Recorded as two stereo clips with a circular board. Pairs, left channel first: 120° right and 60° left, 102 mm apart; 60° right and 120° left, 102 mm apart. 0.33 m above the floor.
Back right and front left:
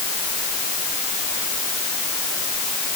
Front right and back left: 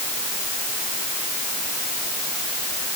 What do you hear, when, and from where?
Only background noise.